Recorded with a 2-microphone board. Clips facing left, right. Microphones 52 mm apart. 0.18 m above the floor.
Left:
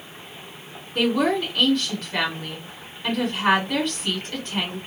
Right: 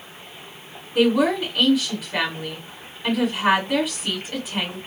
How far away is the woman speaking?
About 1.6 m.